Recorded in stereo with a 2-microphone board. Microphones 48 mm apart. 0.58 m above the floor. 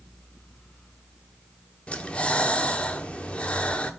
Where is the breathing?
25° left (ahead or behind), 1.1 m.